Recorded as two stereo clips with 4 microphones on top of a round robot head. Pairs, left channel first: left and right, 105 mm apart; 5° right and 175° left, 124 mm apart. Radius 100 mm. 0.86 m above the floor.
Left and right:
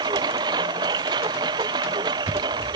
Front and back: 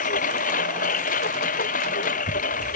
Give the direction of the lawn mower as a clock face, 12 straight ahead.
1 o'clock.